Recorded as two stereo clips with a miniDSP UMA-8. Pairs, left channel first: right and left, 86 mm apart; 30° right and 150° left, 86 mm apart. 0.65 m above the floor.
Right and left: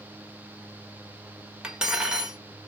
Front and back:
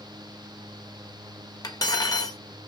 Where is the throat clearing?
I don't hear throat clearing.